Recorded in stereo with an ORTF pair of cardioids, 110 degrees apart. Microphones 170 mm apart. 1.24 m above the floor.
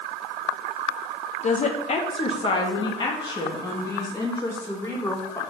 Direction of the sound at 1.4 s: 45° left.